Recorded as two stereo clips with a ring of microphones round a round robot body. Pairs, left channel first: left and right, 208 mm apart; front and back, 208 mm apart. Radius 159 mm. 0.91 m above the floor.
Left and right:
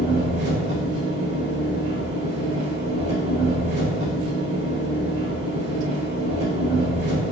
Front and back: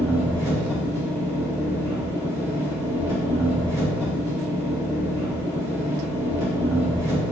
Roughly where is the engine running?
Right.